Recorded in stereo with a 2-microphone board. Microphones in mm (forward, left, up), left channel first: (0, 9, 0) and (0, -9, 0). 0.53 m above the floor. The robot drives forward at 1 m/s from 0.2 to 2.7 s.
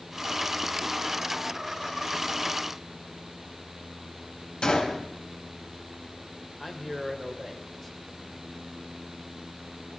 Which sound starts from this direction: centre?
A man speaking, at 6.6 s.